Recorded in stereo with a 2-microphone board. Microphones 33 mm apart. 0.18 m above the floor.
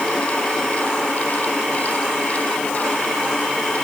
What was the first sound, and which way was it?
Only background noise.